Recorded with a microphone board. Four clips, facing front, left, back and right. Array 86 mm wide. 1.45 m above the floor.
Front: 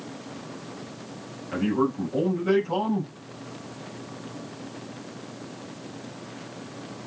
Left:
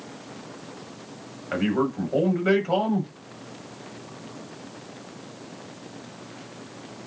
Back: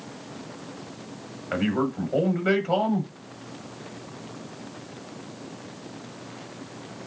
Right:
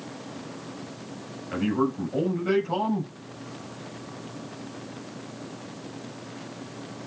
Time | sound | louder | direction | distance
1.5 | a man speaking | left 1 dB, front 1 dB | 135° left | 5 m